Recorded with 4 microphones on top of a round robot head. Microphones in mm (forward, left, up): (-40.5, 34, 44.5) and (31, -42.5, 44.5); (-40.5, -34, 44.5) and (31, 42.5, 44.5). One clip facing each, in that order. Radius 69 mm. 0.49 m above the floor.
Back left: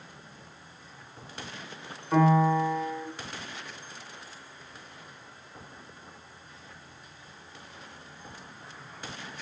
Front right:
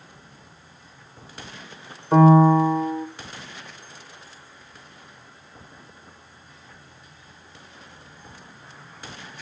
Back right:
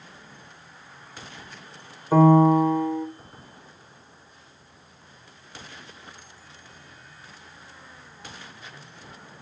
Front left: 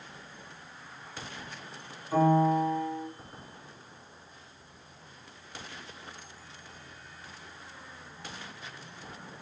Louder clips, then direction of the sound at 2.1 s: Front right 8 dB, back right 8 dB; 100° right.